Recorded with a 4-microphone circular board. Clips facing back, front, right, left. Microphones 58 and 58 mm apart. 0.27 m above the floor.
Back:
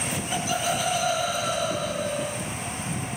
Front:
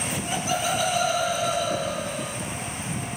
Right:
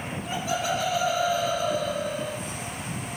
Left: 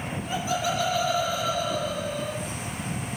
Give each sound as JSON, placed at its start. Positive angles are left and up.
{"t": 0.3, "sound": "laughter", "azimuth_deg": -65, "distance_m": 6.0}